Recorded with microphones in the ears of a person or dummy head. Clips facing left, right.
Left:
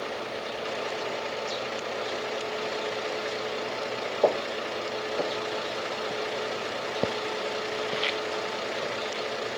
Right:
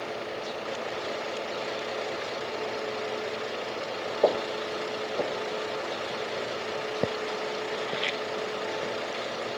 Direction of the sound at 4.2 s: Centre (ahead or behind).